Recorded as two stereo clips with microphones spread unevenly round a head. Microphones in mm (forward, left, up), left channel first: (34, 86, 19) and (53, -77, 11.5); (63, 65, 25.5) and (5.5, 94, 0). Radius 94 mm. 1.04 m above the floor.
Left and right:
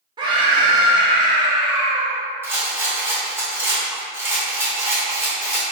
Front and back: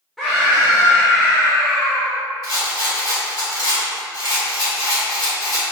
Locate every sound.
0.2 s a scream: 140° right, 0.7 m
2.4 s a rattle: 5° right, 1.8 m